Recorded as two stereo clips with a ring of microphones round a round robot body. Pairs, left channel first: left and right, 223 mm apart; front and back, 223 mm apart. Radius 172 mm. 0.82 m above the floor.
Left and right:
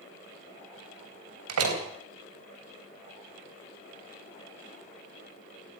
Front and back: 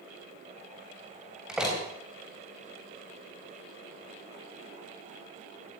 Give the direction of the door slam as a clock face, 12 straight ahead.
3 o'clock.